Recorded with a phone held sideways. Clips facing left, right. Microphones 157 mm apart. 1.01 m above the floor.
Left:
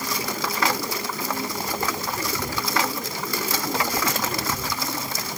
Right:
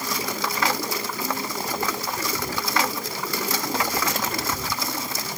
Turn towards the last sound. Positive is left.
No sound to turn to.